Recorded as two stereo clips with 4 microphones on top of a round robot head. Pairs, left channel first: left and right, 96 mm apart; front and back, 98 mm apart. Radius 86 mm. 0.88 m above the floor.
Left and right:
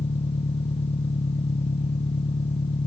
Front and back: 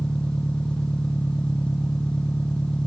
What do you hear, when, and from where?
0.0 s an engine running: 80° left